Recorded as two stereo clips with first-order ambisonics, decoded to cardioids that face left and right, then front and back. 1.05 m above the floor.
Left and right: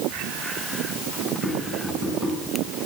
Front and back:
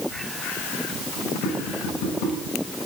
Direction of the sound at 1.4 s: 5° right.